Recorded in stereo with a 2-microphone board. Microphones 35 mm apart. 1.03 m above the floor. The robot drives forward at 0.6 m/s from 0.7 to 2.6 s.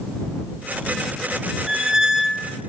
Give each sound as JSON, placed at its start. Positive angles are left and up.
{"t": 1.7, "sound": "a squeak", "side_deg": -15, "distance_m": 0.6}